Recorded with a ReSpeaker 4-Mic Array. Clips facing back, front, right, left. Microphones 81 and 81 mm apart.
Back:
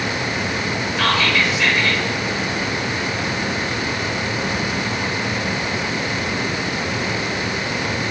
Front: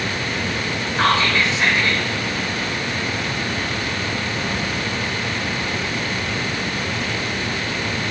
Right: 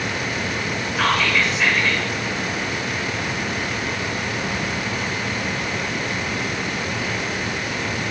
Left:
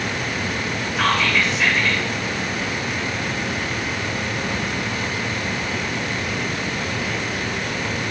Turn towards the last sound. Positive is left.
turn(degrees=-5)